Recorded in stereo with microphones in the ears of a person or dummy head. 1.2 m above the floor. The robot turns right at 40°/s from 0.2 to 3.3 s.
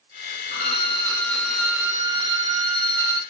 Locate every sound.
0.5 s a violin: 135° left, 0.7 m; by 3.2 s 115° right, 0.7 m